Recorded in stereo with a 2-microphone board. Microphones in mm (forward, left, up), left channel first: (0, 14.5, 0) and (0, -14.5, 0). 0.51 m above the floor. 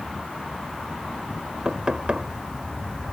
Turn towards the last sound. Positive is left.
turn(degrees=-35)  # may be behind; listen again after turning